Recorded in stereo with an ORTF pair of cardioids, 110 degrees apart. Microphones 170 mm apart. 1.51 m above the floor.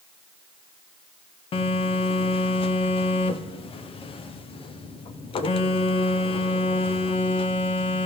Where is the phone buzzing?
35° left, 0.6 m.